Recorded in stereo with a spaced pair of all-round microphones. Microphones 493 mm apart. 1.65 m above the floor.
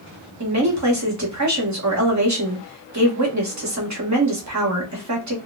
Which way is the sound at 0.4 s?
35° right (ahead or behind).